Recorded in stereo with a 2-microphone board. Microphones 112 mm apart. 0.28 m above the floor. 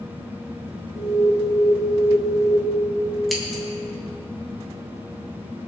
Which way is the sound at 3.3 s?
Centre (ahead or behind).